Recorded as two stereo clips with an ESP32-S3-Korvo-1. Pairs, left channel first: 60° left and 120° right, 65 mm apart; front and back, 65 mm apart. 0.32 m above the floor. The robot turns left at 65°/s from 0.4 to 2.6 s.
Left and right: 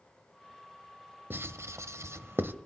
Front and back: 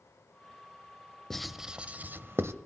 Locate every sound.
1.3 s writing: 80° right, 0.7 m; by 2.5 s 160° right, 0.7 m